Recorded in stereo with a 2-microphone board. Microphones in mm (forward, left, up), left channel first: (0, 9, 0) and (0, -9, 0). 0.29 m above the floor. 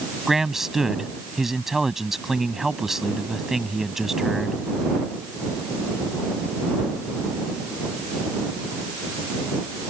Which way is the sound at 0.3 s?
20° right (ahead or behind).